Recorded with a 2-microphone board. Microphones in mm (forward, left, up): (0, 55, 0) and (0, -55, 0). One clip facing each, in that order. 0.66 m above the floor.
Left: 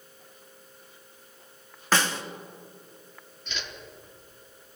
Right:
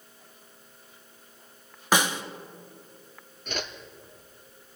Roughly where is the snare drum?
Centre.